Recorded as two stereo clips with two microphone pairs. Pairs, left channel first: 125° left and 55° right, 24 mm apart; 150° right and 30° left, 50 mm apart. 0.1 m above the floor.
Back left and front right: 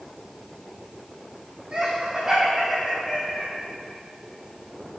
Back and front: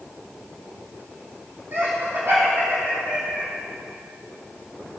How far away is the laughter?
About 4.5 m.